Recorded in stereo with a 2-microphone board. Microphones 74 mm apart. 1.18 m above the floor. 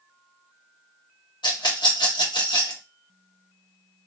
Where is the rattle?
85° left, 1.2 m.